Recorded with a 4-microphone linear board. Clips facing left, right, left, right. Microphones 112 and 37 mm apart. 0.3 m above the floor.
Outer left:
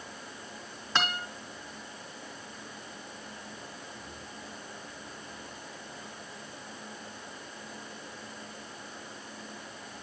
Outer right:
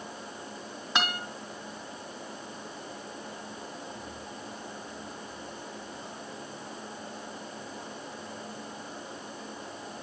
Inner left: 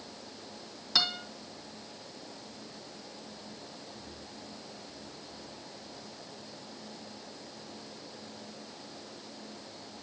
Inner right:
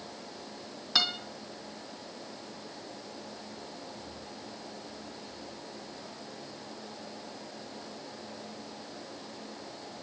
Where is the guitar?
10° right (ahead or behind), 2.5 m.